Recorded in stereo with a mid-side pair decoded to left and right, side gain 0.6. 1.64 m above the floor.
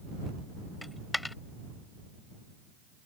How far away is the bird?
No bird in this recording.